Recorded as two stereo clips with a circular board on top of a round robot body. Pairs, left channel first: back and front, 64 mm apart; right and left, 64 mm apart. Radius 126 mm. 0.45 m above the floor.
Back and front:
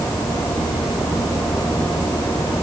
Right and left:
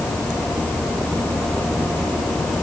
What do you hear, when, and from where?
Only background noise.